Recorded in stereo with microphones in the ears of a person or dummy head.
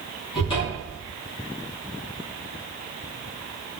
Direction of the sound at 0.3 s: 30° left (ahead or behind).